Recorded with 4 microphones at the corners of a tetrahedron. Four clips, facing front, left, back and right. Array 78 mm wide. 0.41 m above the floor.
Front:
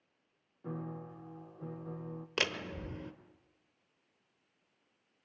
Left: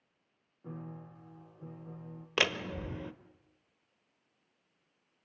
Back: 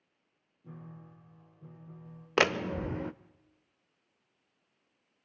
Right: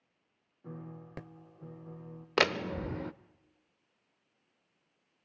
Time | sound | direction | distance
0.6 | a piano | straight ahead | 2.5 m
2.4 | a door slam | 155° right | 0.8 m